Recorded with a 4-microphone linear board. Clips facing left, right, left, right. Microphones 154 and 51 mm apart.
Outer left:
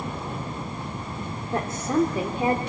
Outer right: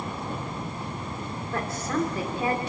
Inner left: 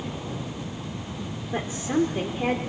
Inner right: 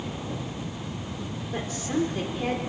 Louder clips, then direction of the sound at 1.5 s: Outer left 5 dB, inner left 3 dB; 20° left (ahead or behind).